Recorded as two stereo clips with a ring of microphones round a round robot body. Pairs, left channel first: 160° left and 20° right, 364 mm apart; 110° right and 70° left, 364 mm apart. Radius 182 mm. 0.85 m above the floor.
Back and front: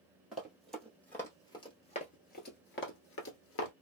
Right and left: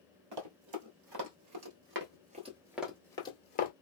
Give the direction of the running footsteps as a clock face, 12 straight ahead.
10 o'clock.